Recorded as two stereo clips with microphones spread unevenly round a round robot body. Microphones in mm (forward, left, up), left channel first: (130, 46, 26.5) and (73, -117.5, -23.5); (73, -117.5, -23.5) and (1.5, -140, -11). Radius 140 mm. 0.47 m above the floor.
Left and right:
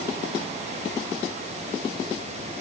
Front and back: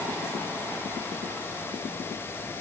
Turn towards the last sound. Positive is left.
No sound to turn to.